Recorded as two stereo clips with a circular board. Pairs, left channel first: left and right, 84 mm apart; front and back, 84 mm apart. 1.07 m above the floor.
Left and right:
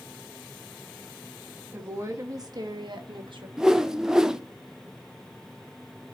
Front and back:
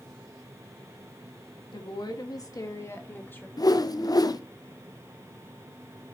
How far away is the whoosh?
About 0.5 m.